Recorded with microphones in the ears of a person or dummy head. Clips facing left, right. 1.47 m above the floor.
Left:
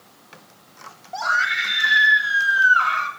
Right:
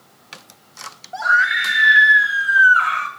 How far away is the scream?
About 1.9 m.